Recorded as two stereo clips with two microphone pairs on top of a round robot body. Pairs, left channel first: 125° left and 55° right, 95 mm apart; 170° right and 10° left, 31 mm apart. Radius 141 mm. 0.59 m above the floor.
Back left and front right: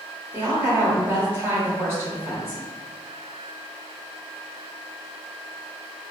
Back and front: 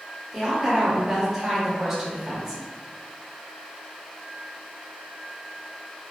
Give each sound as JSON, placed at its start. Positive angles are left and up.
{"t": 0.3, "sound": "a woman speaking", "azimuth_deg": -80, "distance_m": 1.3}